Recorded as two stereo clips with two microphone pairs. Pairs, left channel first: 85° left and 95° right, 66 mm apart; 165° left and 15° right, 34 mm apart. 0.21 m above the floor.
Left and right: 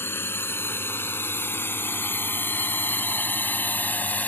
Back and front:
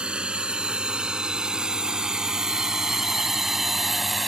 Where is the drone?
40° left; by 4.3 s 70° left.